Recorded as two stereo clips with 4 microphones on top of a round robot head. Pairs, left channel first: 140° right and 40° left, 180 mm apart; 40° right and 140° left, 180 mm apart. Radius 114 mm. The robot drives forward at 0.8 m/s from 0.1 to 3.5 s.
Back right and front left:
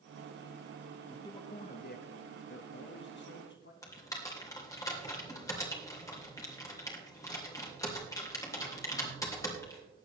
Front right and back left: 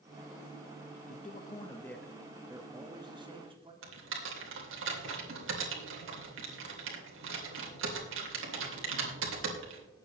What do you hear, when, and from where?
1.1 s a man speaking: 65° right, 0.9 m; by 3.7 s 160° right, 1.8 m
3.8 s typing on a keyboard: 150° left, 3 m